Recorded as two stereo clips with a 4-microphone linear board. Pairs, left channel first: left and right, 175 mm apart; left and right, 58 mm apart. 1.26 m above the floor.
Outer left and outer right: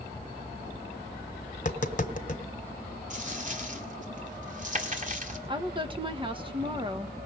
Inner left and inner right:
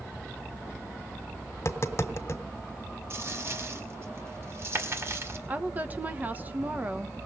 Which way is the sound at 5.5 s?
25° right (ahead or behind).